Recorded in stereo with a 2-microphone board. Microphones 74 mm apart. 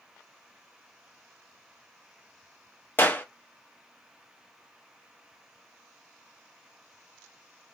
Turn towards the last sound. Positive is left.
turn(degrees=25)  # may be behind; listen again after turning